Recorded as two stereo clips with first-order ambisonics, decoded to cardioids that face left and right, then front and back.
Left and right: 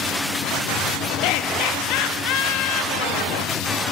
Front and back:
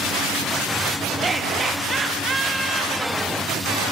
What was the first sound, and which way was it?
Laughter, 110° left.